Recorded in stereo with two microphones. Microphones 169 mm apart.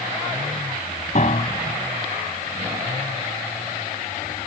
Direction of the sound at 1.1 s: 50° left (ahead or behind).